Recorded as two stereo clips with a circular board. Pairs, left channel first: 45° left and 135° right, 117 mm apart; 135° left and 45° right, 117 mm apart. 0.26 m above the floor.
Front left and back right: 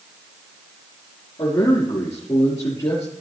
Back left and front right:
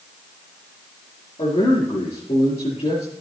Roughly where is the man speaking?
Left.